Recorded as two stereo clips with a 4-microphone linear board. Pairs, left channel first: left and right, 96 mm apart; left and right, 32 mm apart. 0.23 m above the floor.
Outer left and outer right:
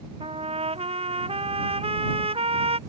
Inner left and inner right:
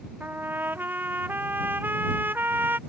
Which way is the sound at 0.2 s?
85° right.